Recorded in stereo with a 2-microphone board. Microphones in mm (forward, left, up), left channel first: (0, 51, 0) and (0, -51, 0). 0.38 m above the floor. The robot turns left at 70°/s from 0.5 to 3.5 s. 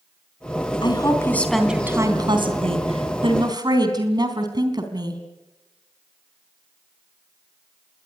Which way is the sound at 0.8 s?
55° left.